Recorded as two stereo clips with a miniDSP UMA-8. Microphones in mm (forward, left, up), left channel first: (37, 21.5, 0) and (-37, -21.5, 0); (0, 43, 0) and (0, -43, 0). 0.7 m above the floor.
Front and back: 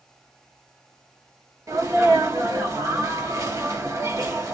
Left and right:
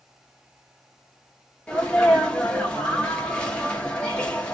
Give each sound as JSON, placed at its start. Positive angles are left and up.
{"t": 1.7, "sound": "a sneeze", "azimuth_deg": 165, "distance_m": 1.1}